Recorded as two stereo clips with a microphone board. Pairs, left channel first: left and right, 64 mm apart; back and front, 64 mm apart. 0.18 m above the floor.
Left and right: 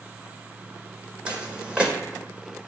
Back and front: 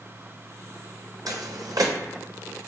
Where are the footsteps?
15° right, 0.5 m.